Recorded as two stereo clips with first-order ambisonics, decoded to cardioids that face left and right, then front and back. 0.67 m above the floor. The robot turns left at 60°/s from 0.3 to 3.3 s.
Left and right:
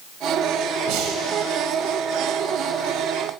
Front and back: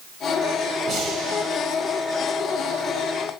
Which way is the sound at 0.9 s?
110° right.